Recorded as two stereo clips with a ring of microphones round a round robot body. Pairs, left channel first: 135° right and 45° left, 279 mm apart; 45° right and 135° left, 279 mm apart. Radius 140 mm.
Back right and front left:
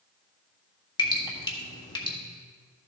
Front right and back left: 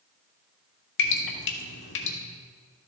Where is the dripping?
65° right, 1.5 m.